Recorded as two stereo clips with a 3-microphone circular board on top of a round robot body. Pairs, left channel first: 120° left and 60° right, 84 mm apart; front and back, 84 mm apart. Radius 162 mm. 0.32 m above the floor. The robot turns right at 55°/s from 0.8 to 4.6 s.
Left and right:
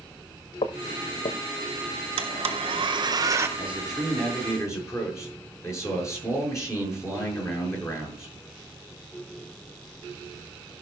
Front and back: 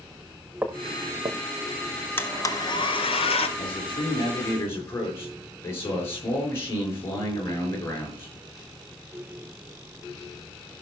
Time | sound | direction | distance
0.6 | footsteps | 105° left | 1.0 m
2.2 | a blender | 70° right | 1.2 m
3.6 | a man speaking | 5° left | 7 m